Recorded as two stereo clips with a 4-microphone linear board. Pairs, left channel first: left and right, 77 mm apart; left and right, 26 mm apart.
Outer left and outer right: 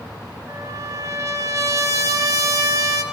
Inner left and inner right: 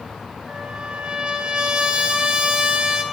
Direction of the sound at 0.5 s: 45° right (ahead or behind).